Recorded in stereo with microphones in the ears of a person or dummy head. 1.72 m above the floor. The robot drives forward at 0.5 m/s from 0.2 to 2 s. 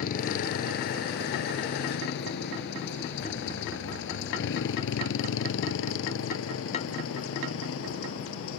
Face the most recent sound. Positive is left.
turn(degrees=85)